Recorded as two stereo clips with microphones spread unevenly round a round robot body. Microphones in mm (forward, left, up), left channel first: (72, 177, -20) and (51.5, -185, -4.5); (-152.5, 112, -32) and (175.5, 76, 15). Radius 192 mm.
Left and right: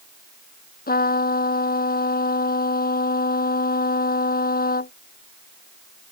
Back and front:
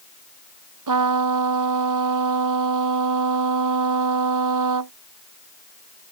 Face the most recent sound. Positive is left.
turn(degrees=20)